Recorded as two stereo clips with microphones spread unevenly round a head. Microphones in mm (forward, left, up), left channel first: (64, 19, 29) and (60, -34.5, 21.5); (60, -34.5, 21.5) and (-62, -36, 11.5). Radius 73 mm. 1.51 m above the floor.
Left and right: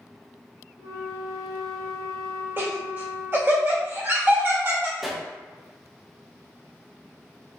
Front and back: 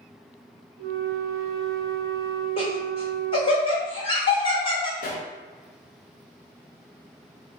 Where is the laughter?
45° right, 1.6 m.